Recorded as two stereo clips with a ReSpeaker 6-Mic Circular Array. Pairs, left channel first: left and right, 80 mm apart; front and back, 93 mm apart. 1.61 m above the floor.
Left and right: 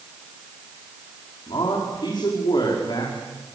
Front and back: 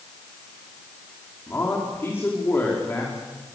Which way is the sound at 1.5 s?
65° left.